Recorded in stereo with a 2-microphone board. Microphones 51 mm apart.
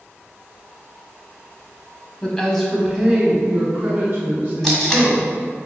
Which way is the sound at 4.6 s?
5° left (ahead or behind).